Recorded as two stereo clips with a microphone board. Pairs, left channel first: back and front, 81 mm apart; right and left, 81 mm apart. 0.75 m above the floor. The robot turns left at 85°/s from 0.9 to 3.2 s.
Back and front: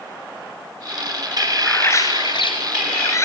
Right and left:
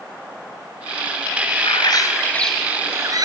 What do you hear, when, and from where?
1.6 s a bird: 100° right, 3.5 m; by 3.2 s 125° left, 3.5 m